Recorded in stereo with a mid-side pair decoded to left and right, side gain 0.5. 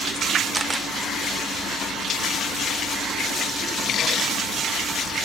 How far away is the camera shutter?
About 0.6 m.